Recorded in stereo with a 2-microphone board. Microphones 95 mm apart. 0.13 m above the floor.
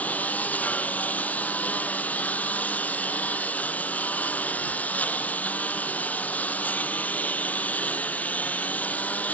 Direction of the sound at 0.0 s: 15° left (ahead or behind).